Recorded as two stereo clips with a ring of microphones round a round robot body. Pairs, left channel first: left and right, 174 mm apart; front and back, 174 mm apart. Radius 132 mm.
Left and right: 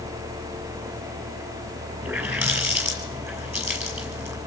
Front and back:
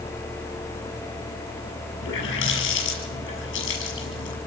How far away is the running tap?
About 7 m.